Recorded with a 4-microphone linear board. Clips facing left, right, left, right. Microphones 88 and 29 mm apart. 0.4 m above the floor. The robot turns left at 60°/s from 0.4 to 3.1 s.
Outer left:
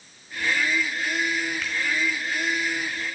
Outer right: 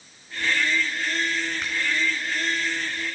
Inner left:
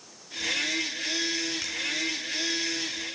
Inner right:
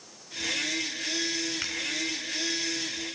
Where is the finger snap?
20° right (ahead or behind), 4.5 m; by 1.8 s 30° right (ahead or behind), 4.5 m.